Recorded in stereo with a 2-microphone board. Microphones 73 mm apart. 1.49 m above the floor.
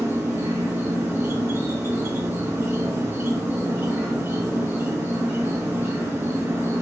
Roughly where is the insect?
Right.